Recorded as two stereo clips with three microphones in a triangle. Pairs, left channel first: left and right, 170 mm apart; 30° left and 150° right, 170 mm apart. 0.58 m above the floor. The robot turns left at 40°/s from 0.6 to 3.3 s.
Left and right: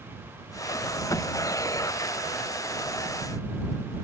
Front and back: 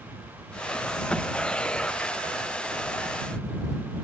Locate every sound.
Only background noise.